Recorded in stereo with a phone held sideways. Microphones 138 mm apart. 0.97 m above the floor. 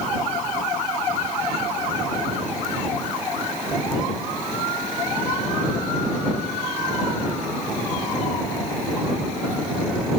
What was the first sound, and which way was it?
Only background noise.